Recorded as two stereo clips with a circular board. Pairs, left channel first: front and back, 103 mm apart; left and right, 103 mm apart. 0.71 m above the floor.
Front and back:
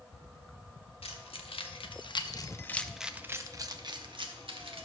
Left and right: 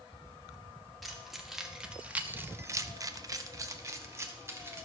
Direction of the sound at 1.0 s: Straight ahead.